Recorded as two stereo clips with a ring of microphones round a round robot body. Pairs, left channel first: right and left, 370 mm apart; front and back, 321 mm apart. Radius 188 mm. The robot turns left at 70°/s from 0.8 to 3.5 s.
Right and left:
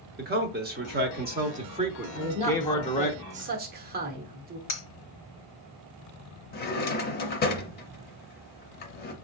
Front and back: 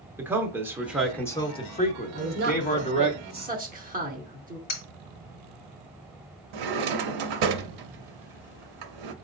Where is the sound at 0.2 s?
105° left, 1.0 m; by 3.1 s 60° right, 1.0 m.